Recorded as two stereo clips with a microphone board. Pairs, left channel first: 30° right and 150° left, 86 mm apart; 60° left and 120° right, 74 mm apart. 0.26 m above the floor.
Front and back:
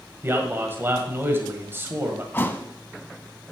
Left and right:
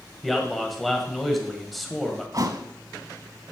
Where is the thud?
90° right, 0.7 m.